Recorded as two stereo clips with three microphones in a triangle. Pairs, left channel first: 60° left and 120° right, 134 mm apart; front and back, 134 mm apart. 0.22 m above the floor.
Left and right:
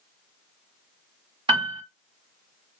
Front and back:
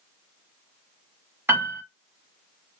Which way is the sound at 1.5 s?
115° right.